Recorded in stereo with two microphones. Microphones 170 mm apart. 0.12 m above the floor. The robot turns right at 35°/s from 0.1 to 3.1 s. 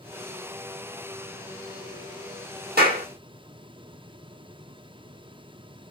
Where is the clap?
65° right (ahead or behind), 3 m; by 3.0 s 70° right (ahead or behind), 3 m.